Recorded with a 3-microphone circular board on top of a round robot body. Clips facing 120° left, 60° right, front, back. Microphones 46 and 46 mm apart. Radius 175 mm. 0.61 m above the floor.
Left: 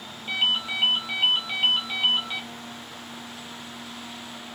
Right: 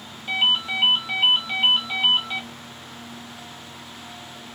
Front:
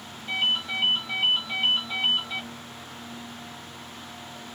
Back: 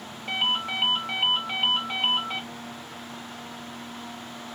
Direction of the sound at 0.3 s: 145° right.